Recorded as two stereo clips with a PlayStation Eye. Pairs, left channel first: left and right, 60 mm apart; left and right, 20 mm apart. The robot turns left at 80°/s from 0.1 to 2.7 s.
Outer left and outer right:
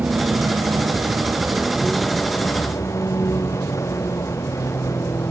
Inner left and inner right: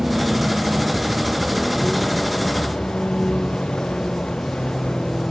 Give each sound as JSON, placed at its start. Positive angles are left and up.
{"t": 0.0, "sound": "a vehicle", "azimuth_deg": -30}